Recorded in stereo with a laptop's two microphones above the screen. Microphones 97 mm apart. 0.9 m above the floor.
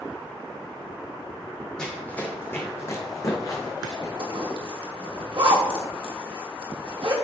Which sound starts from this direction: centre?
Running footsteps, at 1.8 s.